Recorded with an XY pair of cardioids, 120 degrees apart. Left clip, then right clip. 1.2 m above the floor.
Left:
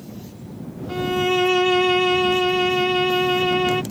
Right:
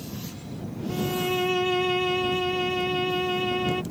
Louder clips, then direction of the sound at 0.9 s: Left 7 dB; 35° left.